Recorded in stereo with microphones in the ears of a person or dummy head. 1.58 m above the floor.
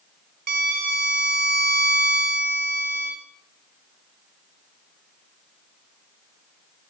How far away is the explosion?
No explosion in this recording.